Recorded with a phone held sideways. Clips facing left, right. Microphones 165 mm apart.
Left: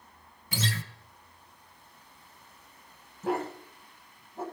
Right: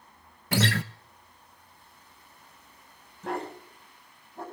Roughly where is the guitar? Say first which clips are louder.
Right 8 dB; right.